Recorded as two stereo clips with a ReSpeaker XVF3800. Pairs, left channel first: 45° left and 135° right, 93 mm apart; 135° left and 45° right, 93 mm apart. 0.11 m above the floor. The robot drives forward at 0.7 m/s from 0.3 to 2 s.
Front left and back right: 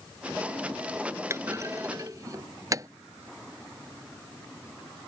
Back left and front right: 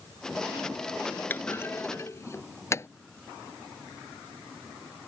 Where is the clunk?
170° right; by 2.9 s 175° right.